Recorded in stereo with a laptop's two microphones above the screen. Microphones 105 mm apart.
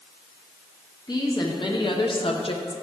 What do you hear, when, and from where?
1.1 s a woman speaking: 40° left (ahead or behind), 1.3 m; by 2.8 s 60° left (ahead or behind), 0.7 m